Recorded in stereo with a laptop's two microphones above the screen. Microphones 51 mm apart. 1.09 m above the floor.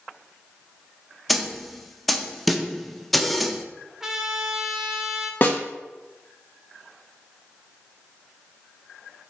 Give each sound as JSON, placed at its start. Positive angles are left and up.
{"t": 1.3, "sound": "a snare drum", "side_deg": 0, "distance_m": 0.6}
{"t": 4.0, "sound": "a trumpet", "side_deg": -10, "distance_m": 0.8}
{"t": 5.4, "sound": "a snare drum", "side_deg": 40, "distance_m": 0.7}